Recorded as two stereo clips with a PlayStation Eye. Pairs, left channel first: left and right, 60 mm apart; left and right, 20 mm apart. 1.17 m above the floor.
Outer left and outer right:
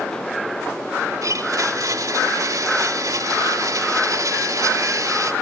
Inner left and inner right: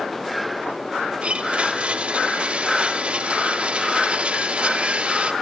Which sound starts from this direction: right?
A blender, at 1.2 s.